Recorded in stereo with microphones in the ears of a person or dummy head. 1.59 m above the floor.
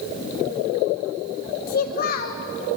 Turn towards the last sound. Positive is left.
turn(degrees=50)  # may be behind; listen again after turning